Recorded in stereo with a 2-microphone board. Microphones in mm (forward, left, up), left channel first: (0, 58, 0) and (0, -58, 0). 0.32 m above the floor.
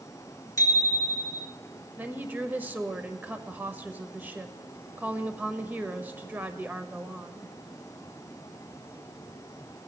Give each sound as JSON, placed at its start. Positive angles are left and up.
{"t": 0.6, "sound": "a bicycle bell", "side_deg": 30, "distance_m": 3.5}
{"t": 2.0, "sound": "a woman speaking", "side_deg": -15, "distance_m": 1.1}